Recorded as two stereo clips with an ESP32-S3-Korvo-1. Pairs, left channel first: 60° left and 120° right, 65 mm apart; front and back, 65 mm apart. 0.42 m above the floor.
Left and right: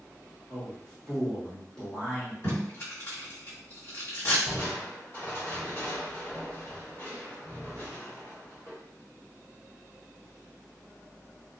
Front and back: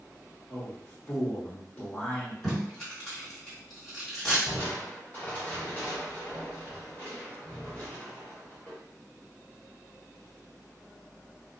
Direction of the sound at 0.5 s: 5° right.